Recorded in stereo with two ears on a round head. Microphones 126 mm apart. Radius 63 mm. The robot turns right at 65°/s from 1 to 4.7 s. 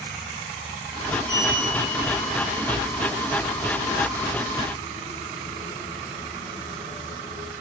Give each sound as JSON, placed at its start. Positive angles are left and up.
{"t": 1.3, "sound": "a sliding door", "side_deg": 35, "distance_m": 6.5}